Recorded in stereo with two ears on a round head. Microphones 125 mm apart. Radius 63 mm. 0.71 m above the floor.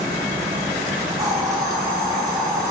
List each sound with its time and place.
1.2 s a hiss: 25° right (ahead or behind), 2.5 m